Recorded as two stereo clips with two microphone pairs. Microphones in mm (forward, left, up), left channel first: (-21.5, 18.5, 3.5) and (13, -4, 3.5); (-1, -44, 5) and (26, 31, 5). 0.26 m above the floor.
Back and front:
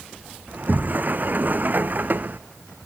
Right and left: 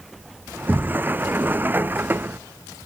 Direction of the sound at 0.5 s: 5° left.